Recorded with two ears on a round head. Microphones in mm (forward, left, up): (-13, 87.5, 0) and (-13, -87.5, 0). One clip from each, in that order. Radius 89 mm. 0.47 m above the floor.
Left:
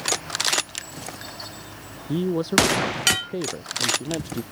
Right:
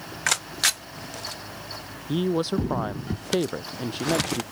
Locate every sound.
2.1 s a woman speaking: 25° right (ahead or behind)